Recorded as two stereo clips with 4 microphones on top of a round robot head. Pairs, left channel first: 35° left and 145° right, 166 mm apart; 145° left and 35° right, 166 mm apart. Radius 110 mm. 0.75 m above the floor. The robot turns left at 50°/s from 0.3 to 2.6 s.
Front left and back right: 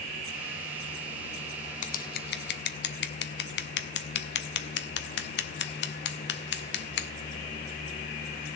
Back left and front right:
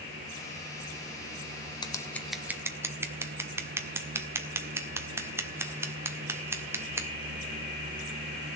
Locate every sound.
1.8 s scissors: 80° left, 1.4 m; by 7.1 s 40° left, 1.4 m